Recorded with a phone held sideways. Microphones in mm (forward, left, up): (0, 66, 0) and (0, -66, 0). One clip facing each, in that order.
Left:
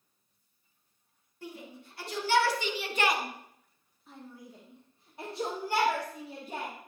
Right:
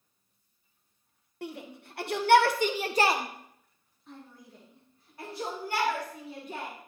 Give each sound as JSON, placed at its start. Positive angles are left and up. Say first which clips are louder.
{"t": 1.4, "sound": "a shout", "louder": "right 4 dB", "side_deg": -70, "distance_m": 1.1}